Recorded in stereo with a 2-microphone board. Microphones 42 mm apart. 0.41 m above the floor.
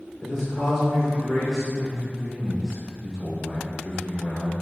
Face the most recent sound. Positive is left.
turn(degrees=10)  # may be behind; listen again after turning